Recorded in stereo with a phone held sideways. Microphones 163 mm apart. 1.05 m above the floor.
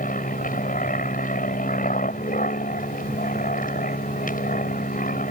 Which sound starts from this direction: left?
An aircraft, at 0.0 s.